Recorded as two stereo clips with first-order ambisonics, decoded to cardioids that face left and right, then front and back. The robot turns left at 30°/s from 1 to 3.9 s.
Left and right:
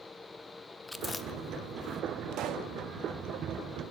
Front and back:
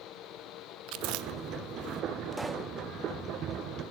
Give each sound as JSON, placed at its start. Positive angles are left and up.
{"t": 0.9, "sound": "chewing", "azimuth_deg": 175, "distance_m": 0.8}
{"t": 2.3, "sound": "a pop", "azimuth_deg": -90, "distance_m": 1.2}